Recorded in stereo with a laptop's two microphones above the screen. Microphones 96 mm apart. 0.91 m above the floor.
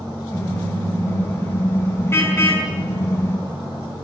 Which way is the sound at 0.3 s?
25° left (ahead or behind).